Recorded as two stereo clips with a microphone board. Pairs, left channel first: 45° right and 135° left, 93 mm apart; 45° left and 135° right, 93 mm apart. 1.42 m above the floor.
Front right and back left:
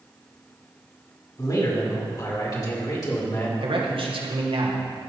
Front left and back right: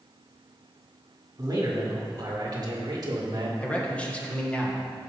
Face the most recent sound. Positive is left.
turn(degrees=120)